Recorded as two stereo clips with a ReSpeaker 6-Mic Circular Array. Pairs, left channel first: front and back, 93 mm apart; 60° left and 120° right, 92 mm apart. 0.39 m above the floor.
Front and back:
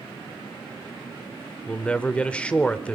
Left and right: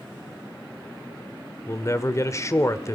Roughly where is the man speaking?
Ahead left.